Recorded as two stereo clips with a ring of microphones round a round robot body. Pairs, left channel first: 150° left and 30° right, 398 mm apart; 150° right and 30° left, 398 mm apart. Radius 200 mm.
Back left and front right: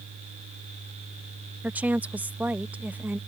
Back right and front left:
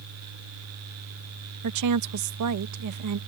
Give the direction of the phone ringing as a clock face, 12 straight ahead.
No phone ringing in this recording.